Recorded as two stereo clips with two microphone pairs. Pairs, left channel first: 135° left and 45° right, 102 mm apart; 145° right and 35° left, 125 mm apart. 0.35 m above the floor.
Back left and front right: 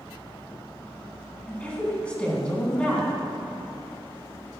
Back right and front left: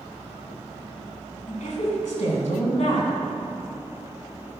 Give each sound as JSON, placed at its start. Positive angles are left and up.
{"t": 1.5, "sound": "a woman speaking", "azimuth_deg": -150, "distance_m": 4.0}